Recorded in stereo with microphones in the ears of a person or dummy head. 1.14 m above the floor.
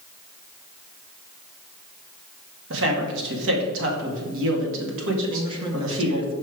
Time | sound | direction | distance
2.7 | a man speaking | 65° right (ahead or behind) | 1.8 m
5.2 | a man speaking | 20° right (ahead or behind) | 0.9 m